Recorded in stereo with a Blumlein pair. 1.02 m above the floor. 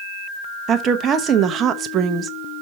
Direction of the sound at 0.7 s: 30° right.